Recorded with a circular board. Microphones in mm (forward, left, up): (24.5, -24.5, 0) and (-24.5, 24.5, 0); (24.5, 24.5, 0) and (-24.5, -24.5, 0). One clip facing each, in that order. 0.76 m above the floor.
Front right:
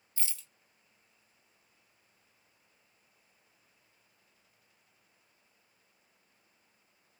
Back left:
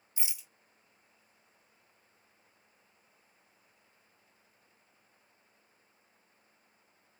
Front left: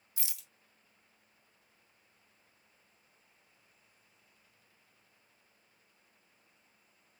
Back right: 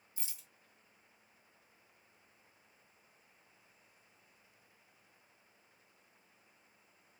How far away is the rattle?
About 0.5 m.